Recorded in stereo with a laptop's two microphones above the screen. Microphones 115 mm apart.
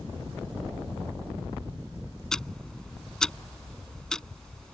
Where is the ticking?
5° left (ahead or behind).